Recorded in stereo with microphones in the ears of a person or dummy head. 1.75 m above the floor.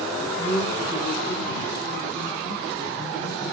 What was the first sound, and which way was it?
A man speaking, 15° left (ahead or behind).